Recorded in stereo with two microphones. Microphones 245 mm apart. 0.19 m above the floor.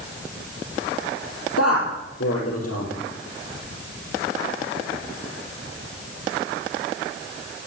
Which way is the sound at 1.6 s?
75° left (ahead or behind).